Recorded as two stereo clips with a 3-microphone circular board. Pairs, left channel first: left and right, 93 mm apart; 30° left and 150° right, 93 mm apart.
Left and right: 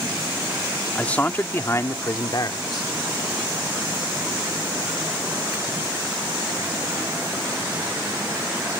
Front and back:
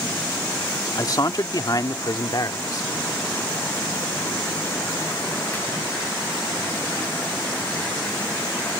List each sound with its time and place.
0.9 s a man speaking: 15° left; by 2.9 s 65° left